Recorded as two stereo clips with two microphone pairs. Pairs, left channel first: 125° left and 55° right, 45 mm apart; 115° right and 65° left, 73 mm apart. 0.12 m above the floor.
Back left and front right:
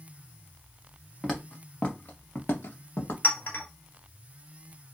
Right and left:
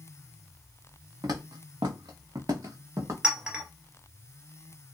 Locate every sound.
1.2 s footsteps: 40° left, 0.8 m; by 3.1 s 115° left, 1.0 m
3.2 s a clink: 135° left, 1.1 m